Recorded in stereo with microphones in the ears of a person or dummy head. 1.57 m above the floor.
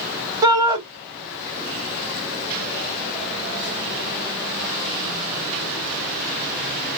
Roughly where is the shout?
Centre.